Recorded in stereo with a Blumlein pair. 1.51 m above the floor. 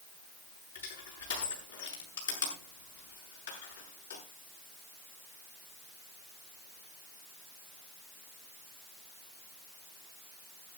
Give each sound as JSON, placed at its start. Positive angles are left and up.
{"t": 0.8, "sound": "crushing", "azimuth_deg": 70, "distance_m": 7.0}